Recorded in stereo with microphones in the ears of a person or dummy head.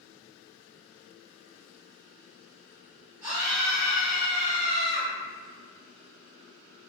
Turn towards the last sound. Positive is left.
turn(degrees=-15)  # may be behind; listen again after turning